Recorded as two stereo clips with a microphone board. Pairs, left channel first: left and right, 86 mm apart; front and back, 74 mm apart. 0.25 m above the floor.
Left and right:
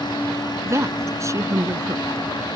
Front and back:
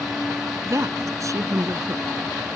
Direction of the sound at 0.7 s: 140° right.